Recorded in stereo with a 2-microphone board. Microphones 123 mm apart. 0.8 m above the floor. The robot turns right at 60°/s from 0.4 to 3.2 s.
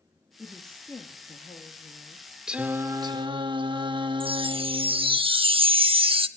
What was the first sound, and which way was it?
A woman speaking, 10° right.